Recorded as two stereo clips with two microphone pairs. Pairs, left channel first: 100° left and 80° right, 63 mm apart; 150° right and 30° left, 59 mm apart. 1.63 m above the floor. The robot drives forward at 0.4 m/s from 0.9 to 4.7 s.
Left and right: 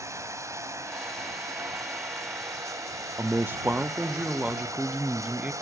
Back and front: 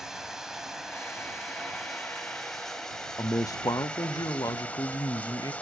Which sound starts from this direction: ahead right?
Running water, at 0.0 s.